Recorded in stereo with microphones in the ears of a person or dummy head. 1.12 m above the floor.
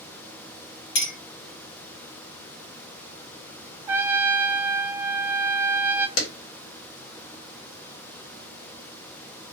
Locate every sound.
0.9 s a clink: 65° left (ahead or behind), 0.9 m
3.9 s a trumpet: 20° right (ahead or behind), 0.5 m
6.2 s a clap: 75° left (ahead or behind), 1.4 m